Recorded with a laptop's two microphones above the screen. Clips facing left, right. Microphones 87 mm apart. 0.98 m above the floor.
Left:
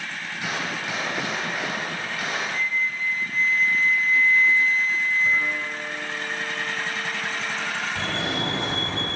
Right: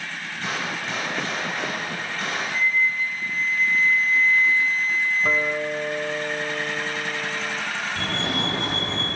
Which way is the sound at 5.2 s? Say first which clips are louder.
Right 2 dB; 85° right.